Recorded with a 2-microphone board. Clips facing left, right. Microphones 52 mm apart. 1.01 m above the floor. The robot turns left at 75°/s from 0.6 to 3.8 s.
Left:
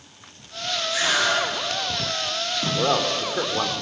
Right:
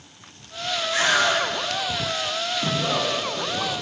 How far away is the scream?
About 8.5 m.